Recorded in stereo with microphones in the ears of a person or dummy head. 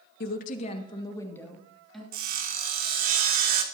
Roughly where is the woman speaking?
Left.